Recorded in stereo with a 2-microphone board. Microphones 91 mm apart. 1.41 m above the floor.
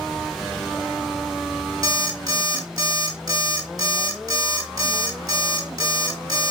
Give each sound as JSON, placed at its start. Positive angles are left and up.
{"t": 1.8, "sound": "an alarm clock", "side_deg": -45, "distance_m": 1.5}